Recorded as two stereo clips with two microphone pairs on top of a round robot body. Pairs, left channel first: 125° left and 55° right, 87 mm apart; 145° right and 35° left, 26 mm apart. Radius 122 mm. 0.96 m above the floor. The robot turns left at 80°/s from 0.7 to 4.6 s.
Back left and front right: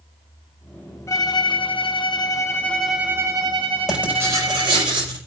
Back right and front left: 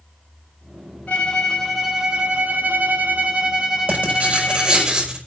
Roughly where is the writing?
Ahead left.